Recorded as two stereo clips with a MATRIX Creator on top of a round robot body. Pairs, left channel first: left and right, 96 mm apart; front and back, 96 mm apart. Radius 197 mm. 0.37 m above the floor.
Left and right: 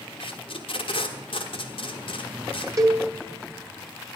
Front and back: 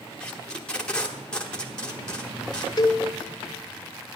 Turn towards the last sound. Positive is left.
turn(degrees=-40)